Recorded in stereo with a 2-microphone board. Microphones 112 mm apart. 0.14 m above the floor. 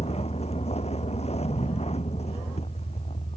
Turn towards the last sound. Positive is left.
turn(degrees=70)  # may be behind; listen again after turning